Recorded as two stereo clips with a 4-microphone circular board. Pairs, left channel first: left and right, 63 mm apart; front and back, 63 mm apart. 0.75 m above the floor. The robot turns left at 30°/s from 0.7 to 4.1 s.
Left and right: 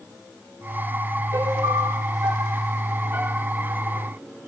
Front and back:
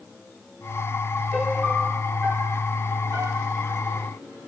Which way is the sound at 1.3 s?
90° right.